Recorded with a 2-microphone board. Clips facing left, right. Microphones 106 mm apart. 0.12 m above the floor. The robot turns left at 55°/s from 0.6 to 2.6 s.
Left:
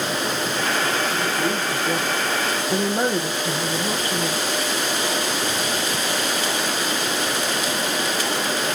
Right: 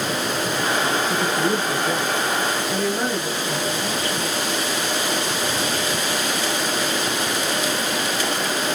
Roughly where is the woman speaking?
Behind right.